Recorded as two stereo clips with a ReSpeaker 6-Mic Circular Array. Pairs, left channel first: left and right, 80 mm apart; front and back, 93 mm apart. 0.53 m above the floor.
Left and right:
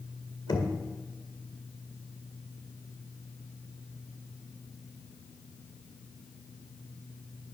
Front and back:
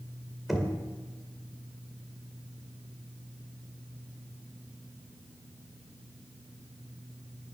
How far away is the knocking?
About 2.0 m.